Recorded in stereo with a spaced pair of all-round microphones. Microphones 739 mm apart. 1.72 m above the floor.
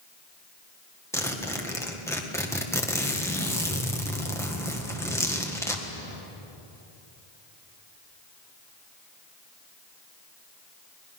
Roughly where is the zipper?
Centre.